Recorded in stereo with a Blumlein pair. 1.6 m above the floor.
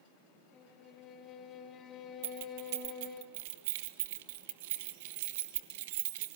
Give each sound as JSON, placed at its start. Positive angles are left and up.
{"t": 0.5, "sound": "a violin", "azimuth_deg": 25, "distance_m": 3.5}
{"t": 2.2, "sound": "keys jangling", "azimuth_deg": -50, "distance_m": 1.5}